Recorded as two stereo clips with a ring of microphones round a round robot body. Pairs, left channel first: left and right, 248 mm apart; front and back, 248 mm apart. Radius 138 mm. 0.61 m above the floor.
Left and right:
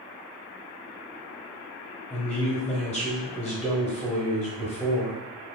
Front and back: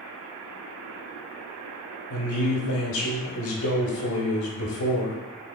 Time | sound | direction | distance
2.1 | a man speaking | 5° right | 0.8 m